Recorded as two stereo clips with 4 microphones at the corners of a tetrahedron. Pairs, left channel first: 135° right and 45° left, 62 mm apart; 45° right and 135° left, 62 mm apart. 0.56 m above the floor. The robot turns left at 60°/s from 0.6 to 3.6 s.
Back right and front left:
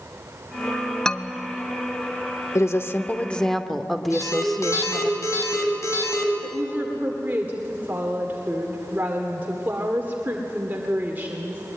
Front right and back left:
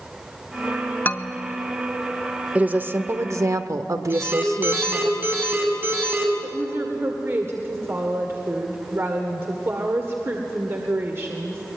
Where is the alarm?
170° right, 3.5 m.